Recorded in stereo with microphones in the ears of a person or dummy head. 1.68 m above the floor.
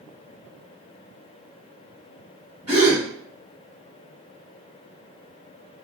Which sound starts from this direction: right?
A gasp, at 2.7 s.